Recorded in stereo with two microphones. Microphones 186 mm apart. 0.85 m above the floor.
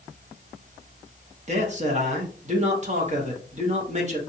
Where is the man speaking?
40° right (ahead or behind), 1.2 m.